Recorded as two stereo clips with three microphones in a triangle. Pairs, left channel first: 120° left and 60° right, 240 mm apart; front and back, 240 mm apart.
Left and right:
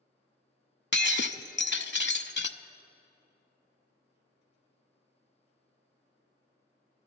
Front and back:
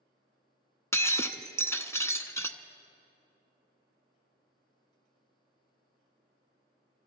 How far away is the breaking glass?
About 0.7 m.